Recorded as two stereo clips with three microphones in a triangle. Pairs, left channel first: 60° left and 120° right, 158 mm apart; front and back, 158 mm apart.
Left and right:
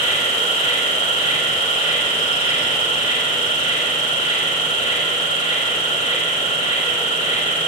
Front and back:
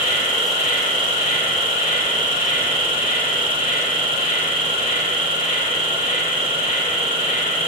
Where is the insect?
25° left, 0.9 m.